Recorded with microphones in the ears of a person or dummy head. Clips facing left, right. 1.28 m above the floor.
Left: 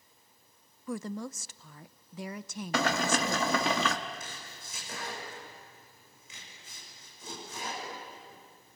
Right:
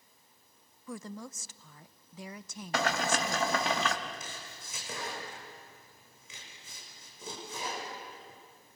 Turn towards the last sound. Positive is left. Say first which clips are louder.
# even
turn(degrees=-70)  # may be behind; listen again after turning